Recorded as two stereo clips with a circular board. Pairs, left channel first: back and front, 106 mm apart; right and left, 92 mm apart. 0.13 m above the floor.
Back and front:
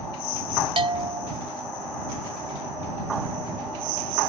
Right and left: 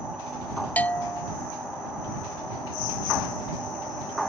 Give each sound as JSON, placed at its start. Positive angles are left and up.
{"t": 0.8, "sound": "a bell", "azimuth_deg": -20}